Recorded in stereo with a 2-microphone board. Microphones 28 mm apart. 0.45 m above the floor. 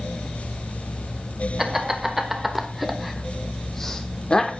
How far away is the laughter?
About 1.6 m.